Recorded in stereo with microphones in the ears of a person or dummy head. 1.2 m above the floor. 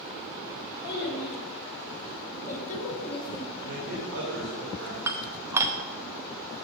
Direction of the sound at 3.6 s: 85° right.